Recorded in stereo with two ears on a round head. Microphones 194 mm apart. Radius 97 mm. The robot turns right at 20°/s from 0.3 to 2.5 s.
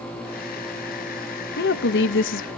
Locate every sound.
1.6 s a woman speaking: 45° left (ahead or behind), 0.7 m; by 2.5 s 60° left (ahead or behind), 0.7 m